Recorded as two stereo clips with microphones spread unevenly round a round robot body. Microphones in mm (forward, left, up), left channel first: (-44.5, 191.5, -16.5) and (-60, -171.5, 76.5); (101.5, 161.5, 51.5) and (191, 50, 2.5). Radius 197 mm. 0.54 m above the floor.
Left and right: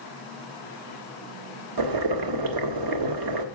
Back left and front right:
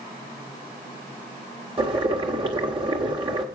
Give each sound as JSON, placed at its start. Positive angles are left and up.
{"t": 1.8, "sound": "boiling", "azimuth_deg": -60, "distance_m": 1.7}